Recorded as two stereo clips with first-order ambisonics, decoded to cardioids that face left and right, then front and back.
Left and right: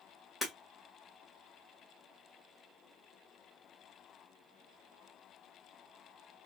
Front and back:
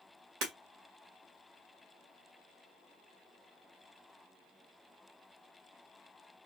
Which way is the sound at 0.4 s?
175° left.